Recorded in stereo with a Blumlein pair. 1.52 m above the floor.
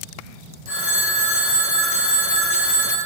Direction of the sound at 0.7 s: 50° left.